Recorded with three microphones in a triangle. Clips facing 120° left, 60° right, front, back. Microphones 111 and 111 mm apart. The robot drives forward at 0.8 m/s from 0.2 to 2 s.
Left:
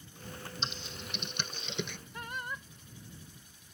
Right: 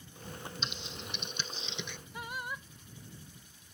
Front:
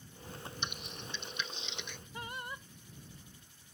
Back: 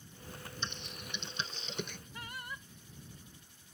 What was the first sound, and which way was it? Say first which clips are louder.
Typing on a keyboard: left 1 dB, back 1 dB; 70° left.